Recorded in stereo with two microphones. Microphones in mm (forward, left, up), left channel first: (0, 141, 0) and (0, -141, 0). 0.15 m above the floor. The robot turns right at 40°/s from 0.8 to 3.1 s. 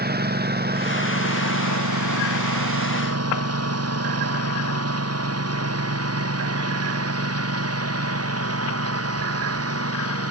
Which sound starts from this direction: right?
A lawn mower, at 0.0 s.